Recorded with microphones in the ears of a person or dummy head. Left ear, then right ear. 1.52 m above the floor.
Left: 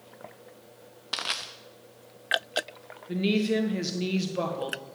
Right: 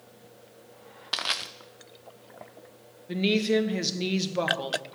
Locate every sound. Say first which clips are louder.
1.1 s crushing: right 2 dB; 10° right (ahead or behind), 0.6 m
3.1 s a woman speaking: right 2 dB; 20° right (ahead or behind), 1.3 m